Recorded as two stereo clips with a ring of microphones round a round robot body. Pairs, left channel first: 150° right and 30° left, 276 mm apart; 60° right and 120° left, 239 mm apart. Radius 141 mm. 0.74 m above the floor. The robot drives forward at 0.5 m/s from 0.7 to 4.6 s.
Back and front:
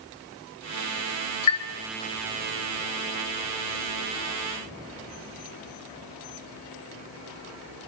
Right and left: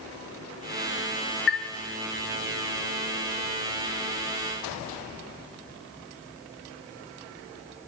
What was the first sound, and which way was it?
A chime, 115° right.